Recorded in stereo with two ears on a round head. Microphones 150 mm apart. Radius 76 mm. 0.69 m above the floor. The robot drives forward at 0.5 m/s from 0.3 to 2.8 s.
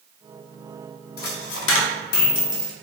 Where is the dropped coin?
60° left (ahead or behind), 0.5 m; by 2.7 s 40° left (ahead or behind), 0.7 m.